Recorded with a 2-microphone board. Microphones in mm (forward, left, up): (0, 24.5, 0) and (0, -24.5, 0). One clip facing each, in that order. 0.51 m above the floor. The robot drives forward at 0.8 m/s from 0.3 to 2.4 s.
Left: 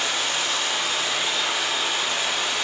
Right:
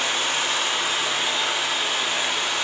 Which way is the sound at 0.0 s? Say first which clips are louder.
Right 1 dB; 35° right (ahead or behind).